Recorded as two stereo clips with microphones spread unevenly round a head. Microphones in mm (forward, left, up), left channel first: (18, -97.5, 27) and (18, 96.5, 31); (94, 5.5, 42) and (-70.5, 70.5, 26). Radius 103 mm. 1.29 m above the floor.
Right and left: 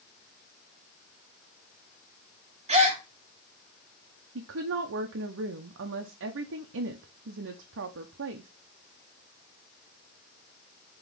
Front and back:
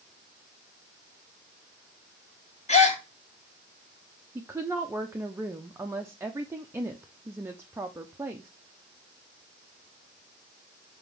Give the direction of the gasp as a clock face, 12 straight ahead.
11 o'clock.